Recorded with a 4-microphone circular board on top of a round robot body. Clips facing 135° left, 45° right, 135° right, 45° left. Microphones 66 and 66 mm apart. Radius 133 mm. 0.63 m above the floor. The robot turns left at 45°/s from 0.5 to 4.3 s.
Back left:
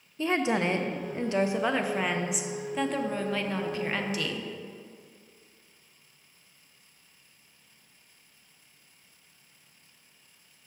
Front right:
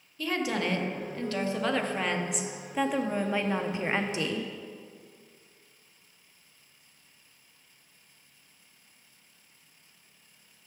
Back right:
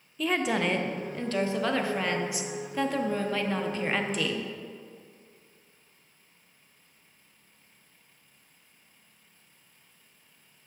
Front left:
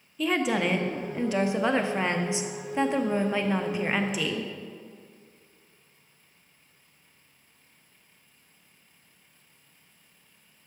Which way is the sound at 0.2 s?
135° left.